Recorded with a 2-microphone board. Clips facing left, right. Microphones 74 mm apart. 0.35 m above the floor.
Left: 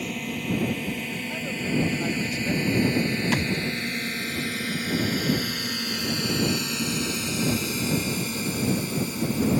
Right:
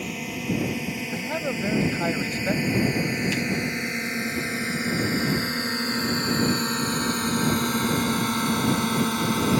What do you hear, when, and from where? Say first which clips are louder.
0.0 s a drone: even; 5° right (ahead or behind); by 9.6 s 65° right (ahead or behind)
1.1 s a man speaking: right 4 dB; 40° right (ahead or behind)
3.3 s a thud: left 1 dB; 60° left (ahead or behind)